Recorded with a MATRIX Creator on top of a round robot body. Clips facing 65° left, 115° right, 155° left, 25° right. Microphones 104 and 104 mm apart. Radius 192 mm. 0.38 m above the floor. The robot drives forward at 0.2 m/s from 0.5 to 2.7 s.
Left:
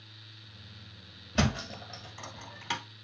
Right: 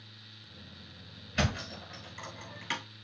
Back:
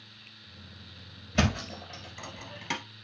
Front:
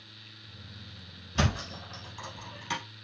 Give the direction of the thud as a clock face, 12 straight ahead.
8 o'clock.